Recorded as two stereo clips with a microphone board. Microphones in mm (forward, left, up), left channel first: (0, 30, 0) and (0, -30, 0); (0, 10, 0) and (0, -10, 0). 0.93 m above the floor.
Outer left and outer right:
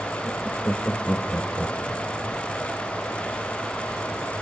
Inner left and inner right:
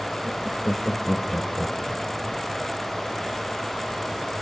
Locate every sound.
0.2 s laughter: 20° left (ahead or behind), 1.5 m